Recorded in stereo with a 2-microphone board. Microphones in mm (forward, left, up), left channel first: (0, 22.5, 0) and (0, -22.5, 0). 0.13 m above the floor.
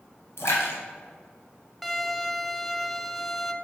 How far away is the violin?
About 0.7 m.